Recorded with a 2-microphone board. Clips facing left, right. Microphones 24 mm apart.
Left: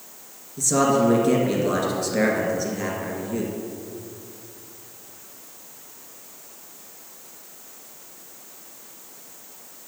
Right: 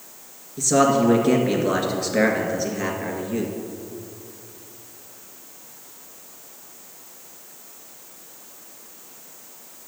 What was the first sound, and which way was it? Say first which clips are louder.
A man speaking: right 2 dB; 15° right (ahead or behind).